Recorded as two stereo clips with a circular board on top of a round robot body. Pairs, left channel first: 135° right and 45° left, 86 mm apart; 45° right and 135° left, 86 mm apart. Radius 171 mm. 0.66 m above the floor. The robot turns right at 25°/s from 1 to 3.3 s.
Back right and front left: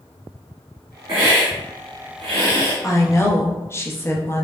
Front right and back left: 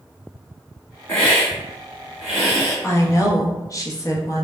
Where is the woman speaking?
95° right, 0.9 m; by 4.5 s 85° right, 0.9 m.